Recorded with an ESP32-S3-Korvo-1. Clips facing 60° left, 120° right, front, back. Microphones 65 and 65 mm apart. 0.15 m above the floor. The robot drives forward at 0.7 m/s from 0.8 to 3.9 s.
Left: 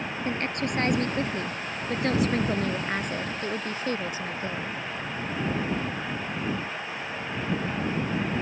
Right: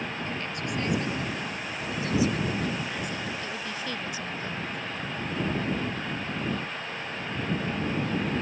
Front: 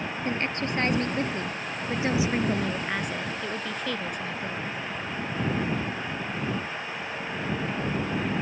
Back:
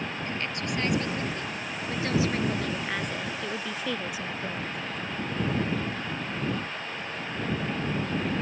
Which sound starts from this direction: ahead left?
A woman speaking, at 0.2 s.